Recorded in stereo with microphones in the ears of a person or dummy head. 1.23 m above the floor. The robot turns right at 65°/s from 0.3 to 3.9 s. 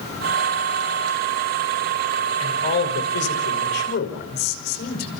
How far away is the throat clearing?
No throat clearing in this recording.